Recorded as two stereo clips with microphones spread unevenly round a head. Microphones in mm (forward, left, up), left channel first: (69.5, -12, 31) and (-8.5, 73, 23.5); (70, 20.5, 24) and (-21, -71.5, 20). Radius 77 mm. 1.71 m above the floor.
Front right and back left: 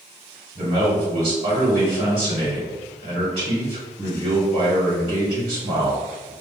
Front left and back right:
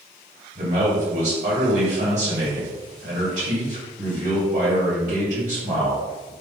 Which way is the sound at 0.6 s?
175° right.